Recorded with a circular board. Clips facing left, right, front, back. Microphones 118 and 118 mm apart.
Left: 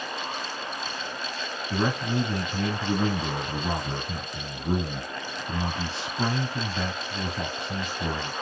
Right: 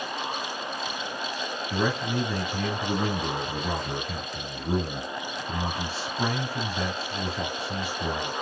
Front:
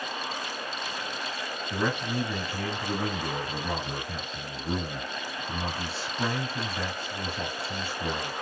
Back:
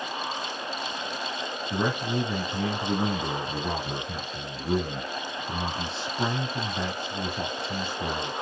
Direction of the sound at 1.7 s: 140° left.